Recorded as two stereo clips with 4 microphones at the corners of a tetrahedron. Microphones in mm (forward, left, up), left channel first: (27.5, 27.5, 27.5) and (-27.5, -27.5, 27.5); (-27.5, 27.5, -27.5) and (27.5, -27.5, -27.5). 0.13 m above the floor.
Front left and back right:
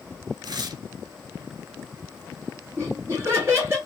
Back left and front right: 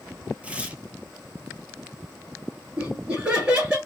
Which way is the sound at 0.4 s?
115° right.